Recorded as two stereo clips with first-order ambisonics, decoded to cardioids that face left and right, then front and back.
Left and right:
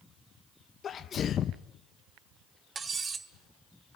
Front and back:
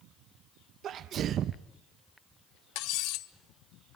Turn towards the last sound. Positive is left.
turn(degrees=-20)